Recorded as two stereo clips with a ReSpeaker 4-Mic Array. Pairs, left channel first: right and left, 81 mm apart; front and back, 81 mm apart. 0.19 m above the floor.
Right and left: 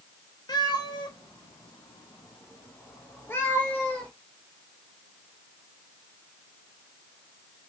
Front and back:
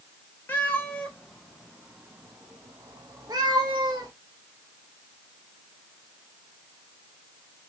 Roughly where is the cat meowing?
Ahead right.